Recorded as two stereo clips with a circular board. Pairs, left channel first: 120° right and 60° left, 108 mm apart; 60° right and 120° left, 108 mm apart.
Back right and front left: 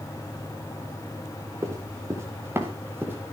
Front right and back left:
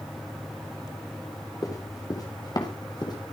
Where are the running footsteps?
Straight ahead, 3.5 m; by 3.3 s 10° right, 4.5 m.